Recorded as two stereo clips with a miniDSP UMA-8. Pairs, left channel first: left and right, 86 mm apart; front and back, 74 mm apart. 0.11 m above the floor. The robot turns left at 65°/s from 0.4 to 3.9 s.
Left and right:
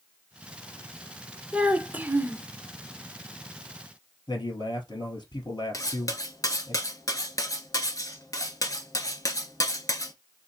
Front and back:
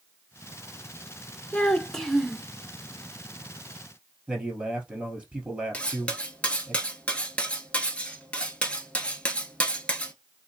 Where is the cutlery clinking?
70° left, 1.0 m.